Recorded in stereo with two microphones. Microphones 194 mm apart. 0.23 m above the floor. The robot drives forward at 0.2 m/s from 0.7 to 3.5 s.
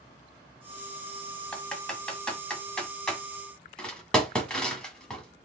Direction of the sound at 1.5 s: 5° left (ahead or behind).